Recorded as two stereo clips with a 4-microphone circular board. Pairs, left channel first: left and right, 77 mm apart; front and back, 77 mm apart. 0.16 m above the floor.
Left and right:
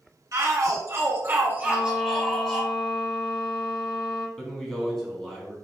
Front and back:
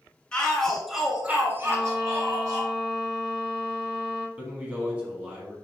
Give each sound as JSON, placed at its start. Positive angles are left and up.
{"t": 0.3, "sound": "a shout", "azimuth_deg": -75, "distance_m": 1.5}
{"t": 1.6, "sound": "a violin", "azimuth_deg": 100, "distance_m": 0.9}
{"t": 4.4, "sound": "a man speaking", "azimuth_deg": 160, "distance_m": 1.1}